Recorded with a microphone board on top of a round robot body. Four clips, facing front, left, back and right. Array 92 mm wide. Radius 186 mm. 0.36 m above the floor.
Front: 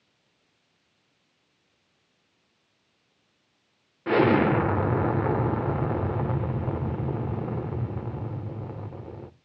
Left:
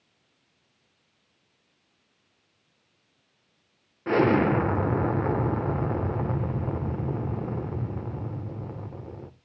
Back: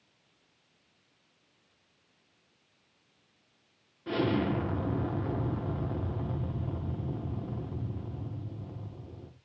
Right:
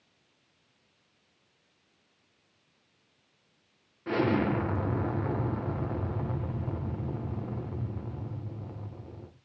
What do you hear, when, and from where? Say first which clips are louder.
4.1 s an explosion: left 6 dB, front 9 dB; 30° left, 1.8 m